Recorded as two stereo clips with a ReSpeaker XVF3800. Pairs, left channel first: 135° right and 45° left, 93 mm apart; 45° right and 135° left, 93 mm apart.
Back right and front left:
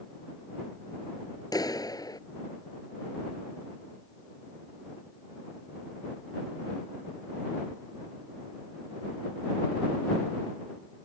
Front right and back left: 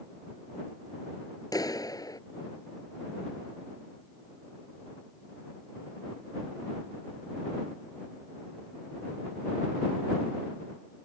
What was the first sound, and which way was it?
A clap, 90° right.